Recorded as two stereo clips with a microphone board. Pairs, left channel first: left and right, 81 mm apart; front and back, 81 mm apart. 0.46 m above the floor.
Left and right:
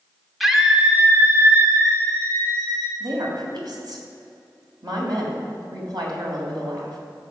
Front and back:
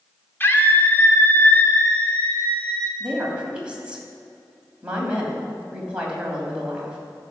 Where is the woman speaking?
105° right, 3 m.